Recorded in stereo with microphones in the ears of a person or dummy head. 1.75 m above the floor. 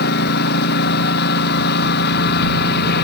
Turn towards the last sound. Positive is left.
turn(degrees=55)  # may be behind; listen again after turning